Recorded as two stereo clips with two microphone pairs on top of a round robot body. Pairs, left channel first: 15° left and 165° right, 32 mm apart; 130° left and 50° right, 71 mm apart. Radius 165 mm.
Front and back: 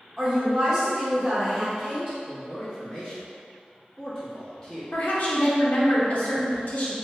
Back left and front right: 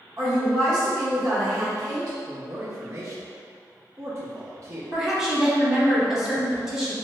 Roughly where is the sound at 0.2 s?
Right.